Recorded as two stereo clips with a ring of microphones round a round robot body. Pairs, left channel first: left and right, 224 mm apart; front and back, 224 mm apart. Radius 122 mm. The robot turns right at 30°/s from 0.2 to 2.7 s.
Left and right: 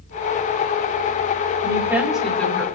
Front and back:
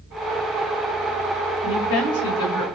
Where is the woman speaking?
20° right, 4 m; by 2.7 s 15° left, 4 m.